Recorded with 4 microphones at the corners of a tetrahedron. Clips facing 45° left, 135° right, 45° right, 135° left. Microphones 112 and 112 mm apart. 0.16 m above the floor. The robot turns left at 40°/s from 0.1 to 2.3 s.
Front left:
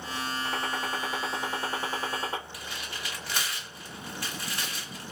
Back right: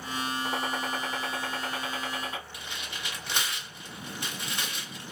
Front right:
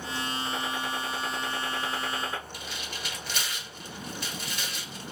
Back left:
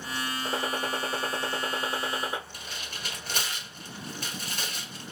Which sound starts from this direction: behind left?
A gunshot, at 0.5 s.